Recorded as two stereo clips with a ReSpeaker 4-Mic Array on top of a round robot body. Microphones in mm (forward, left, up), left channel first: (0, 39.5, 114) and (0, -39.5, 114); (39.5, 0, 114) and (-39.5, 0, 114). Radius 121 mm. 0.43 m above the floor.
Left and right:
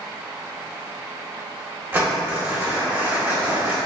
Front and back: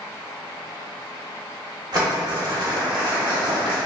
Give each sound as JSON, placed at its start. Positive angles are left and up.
{"t": 1.9, "sound": "crumpling", "azimuth_deg": -150, "distance_m": 1.6}